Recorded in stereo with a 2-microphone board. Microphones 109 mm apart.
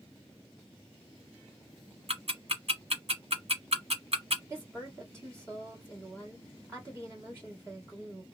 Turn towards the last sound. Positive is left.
turn(degrees=-25)  # may be behind; listen again after turning